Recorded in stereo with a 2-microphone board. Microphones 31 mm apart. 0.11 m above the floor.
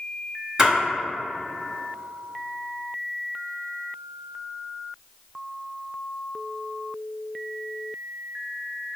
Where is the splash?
20° right (ahead or behind), 1.9 m.